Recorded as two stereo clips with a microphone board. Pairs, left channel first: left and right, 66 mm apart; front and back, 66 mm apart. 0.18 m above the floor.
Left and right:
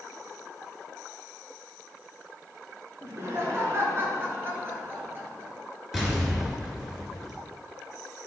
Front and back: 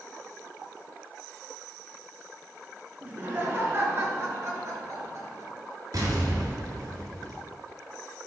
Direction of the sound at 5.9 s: 175° right.